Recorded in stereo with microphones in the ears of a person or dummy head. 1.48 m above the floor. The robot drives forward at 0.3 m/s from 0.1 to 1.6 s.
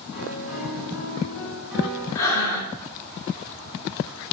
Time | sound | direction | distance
0.1 | a piano | centre (ahead or behind) | 3 m
2.1 | breathing | 20° left (ahead or behind) | 2 m